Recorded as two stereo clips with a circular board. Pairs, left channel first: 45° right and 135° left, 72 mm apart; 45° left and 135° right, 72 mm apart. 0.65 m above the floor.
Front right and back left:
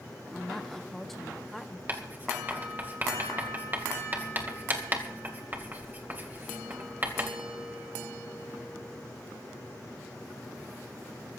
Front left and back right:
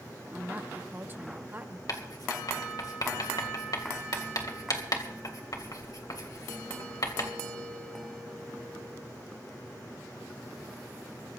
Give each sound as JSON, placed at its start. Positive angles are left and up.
{"t": 0.3, "sound": "a woman speaking", "azimuth_deg": -130, "distance_m": 1.0}
{"t": 1.9, "sound": "writing", "azimuth_deg": 70, "distance_m": 2.5}